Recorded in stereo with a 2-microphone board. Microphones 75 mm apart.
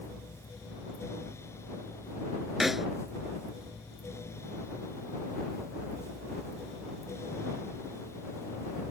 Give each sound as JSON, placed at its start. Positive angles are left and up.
{"t": 2.6, "sound": "a snare drum", "side_deg": -5}